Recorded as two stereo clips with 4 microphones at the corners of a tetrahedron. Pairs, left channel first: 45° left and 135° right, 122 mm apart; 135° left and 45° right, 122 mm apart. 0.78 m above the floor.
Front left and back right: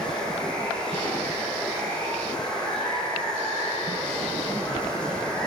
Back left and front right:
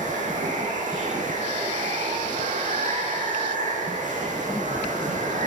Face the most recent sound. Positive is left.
turn(degrees=-40)